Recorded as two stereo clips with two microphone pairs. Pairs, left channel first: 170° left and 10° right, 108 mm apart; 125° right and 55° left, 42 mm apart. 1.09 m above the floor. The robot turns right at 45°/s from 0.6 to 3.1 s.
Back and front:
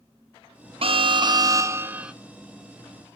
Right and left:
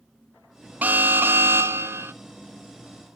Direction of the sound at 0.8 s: 15° left.